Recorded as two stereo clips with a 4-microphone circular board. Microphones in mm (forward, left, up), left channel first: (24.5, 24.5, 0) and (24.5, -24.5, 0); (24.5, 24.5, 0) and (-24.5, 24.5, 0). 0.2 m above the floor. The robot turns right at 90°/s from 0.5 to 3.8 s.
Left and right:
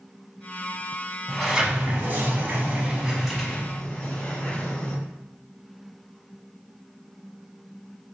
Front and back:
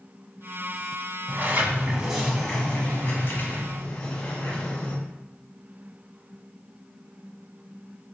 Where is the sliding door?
175° left, 1.0 m; by 5.0 s 45° left, 1.0 m.